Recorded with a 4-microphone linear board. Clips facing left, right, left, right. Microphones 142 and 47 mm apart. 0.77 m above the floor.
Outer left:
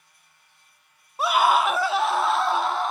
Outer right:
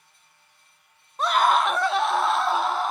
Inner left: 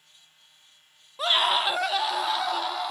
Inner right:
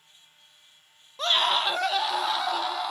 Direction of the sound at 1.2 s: 10° left (ahead or behind).